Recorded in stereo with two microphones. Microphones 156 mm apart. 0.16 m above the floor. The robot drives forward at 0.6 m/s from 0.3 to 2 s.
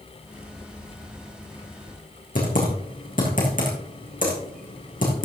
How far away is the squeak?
I don't hear a squeak.